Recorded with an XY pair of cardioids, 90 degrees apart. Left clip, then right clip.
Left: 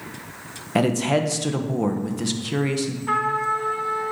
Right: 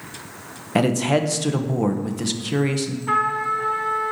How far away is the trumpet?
About 2 m.